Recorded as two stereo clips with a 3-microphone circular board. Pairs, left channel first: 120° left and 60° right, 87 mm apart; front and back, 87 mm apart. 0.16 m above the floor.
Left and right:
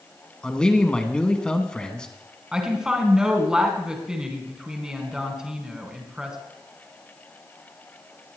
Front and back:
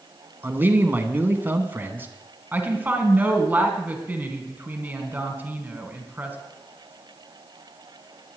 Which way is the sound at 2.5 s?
135° right.